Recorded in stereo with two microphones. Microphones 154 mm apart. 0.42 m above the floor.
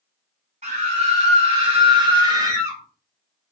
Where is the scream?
50° right (ahead or behind), 1.9 m; by 2.8 s 20° right (ahead or behind), 1.4 m.